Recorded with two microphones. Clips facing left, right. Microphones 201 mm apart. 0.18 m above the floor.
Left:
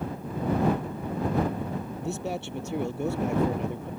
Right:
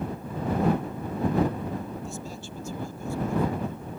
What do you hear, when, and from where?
2.0 s a man speaking: 70° left (ahead or behind); by 3.9 s 75° left (ahead or behind)